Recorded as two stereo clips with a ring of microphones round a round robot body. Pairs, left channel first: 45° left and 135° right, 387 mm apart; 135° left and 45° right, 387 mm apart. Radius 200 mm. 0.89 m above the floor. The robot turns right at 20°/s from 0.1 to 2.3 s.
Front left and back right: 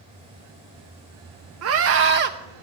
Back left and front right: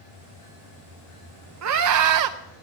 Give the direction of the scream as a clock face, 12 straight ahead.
3 o'clock.